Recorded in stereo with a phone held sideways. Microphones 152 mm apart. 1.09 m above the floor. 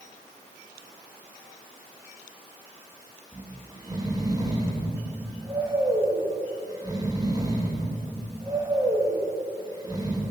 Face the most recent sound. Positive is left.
turn(degrees=-25)  # may be behind; listen again after turning